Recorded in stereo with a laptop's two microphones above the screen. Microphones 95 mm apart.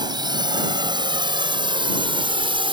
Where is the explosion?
No explosion in this recording.